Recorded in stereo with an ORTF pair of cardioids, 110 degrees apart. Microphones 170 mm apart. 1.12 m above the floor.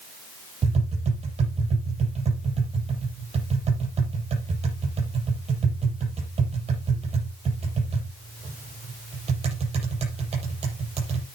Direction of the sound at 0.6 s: 40° right.